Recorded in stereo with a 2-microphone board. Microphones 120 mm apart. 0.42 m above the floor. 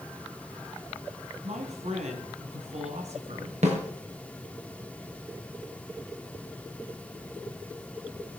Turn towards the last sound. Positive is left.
turn(degrees=-75)  # may be behind; listen again after turning